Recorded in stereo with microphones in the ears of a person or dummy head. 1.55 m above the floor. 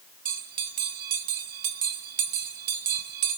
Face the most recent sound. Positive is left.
turn(degrees=-60)  # may be behind; listen again after turning